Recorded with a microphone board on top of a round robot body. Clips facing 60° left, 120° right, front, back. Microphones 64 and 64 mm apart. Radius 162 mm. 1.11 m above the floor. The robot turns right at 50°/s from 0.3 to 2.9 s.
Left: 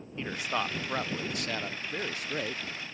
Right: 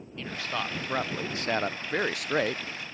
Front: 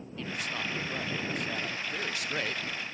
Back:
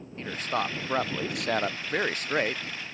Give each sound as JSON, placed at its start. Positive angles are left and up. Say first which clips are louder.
{"t": 0.2, "sound": "a man speaking", "louder": "left 1 dB, back 6 dB", "azimuth_deg": 130}